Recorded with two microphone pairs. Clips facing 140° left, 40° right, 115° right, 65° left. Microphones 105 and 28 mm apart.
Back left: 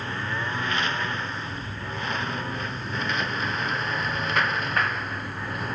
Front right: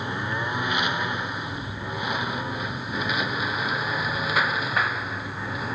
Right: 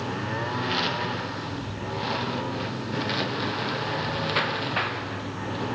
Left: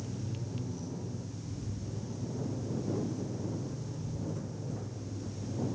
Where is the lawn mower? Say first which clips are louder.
Front right 2 dB, right 12 dB; 115° right; by 5.8 s 125° right.